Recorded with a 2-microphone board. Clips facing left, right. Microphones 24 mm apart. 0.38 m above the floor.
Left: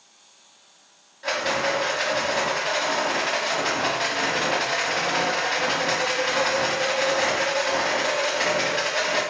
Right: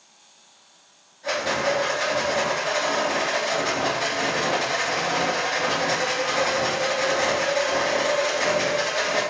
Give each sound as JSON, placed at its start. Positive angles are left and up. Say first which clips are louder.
{"t": 1.2, "sound": "a rattle", "louder": "even", "side_deg": 75, "distance_m": 1.0}